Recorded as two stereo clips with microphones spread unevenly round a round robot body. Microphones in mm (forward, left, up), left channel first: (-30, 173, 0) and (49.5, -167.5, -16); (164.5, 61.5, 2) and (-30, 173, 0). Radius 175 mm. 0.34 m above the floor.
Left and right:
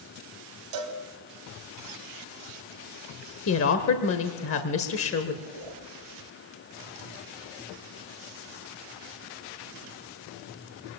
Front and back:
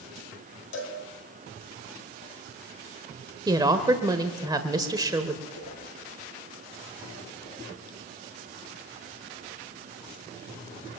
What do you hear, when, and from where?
0.7 s a cowbell: 65° right, 2 m
3.5 s a woman speaking: 95° left, 1.3 m
5.5 s a whoosh: 50° right, 5.5 m